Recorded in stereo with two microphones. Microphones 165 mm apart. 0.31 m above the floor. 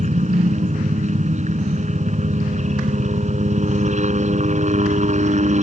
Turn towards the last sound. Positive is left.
turn(degrees=-40)  # may be behind; listen again after turning